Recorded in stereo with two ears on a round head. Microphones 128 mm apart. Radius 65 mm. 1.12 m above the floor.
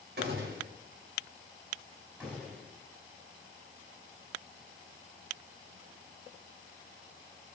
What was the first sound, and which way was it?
A gunshot, 75° right (ahead or behind).